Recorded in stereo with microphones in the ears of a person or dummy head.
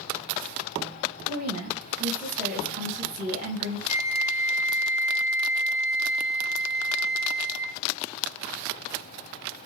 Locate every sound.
1.3 s a woman speaking: 40° right (ahead or behind), 1.9 m
3.9 s a flute: 15° right (ahead or behind), 1.1 m